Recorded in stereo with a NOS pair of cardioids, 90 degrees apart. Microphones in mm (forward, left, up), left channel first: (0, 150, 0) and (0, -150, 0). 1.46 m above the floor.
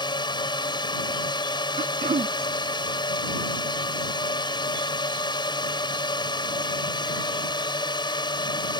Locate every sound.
0.0 s a drone: 15° left
1.8 s throat clearing: 25° right